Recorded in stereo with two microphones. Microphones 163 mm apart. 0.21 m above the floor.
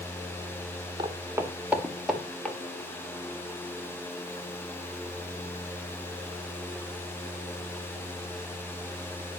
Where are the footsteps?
30° right (ahead or behind), 2 m; by 2.6 s 10° left (ahead or behind), 2.5 m.